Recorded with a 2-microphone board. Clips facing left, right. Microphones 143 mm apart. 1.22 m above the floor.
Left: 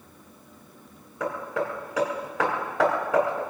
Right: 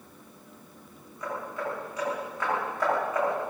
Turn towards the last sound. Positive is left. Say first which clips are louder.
# left 5 dB
turn(degrees=80)